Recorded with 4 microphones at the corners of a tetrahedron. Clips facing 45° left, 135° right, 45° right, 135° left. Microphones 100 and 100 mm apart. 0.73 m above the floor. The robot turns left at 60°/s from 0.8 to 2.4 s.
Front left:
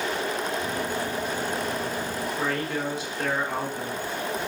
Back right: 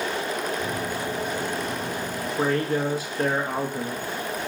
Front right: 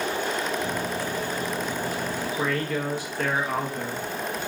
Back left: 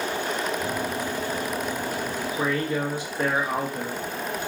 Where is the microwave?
170° left, 3 m; by 2.3 s 80° left, 3 m.